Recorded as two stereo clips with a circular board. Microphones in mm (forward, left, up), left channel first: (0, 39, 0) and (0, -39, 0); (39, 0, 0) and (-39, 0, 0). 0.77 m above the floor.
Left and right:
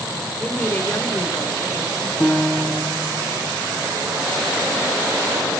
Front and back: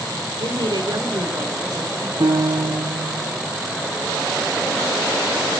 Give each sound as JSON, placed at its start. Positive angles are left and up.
{"t": 0.4, "sound": "a woman speaking", "azimuth_deg": 165, "distance_m": 2.5}
{"t": 2.2, "sound": "a piano", "azimuth_deg": 160, "distance_m": 6.0}